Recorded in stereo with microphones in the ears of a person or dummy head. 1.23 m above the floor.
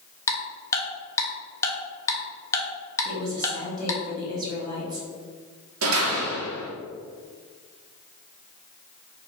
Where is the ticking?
15° left (ahead or behind), 1.0 m.